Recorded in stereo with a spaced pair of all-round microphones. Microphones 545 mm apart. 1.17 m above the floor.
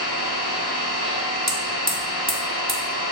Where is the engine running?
30° right (ahead or behind), 1.3 m.